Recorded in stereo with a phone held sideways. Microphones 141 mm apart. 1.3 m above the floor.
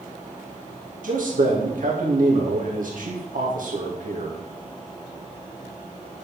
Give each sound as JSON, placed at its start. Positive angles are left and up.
{"t": 1.0, "sound": "a man speaking", "side_deg": -75, "distance_m": 2.0}